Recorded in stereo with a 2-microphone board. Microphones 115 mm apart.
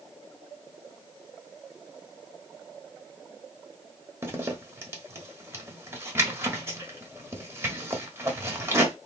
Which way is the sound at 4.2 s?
25° right (ahead or behind).